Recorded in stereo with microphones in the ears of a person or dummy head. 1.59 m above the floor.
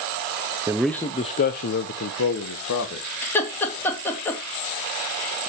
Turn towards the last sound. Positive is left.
turn(degrees=10)  # may be behind; listen again after turning